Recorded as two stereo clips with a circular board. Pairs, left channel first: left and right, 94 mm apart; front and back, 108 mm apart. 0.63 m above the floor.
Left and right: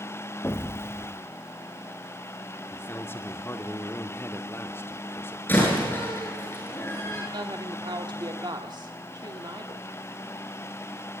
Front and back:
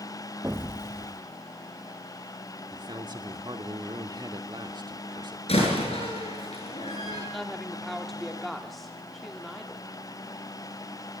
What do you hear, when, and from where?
0.4 s an explosion: 130° left, 0.8 m
2.7 s a man speaking: 145° left, 1.7 m
5.5 s a door slam: 20° left, 8.5 m
7.3 s a woman speaking: 90° right, 1.6 m